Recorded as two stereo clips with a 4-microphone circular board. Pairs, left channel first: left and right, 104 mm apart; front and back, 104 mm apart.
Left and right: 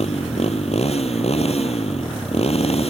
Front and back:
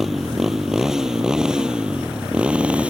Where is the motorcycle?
95° left; by 2.9 s 105° left.